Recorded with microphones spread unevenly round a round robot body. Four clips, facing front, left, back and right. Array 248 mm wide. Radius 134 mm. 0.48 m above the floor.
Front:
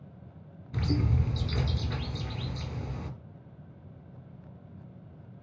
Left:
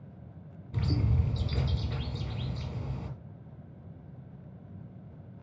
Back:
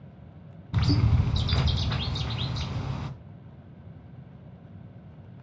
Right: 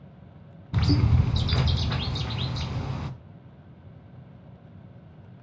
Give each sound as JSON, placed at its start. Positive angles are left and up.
{"t": 0.7, "sound": "a bird", "azimuth_deg": -120, "distance_m": 1.7}